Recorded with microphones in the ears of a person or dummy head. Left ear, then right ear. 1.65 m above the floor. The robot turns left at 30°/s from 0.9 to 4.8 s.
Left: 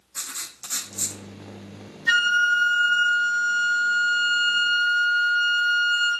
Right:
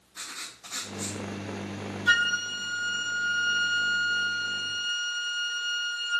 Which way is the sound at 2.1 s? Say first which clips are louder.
Left 5 dB; 155° right.